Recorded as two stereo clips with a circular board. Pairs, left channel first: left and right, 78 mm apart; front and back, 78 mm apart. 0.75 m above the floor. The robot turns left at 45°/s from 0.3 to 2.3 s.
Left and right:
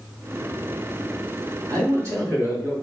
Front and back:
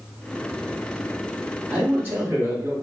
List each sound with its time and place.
1.7 s a man speaking: 110° right, 1.7 m; by 2.8 s 135° right, 1.7 m